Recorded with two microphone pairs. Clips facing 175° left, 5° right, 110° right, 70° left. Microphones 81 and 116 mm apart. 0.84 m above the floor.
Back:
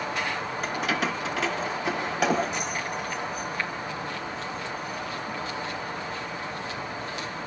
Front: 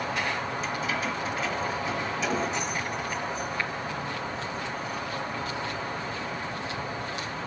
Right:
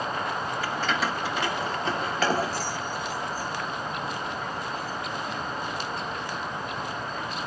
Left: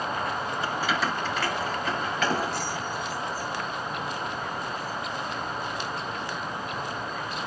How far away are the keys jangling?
About 0.9 m.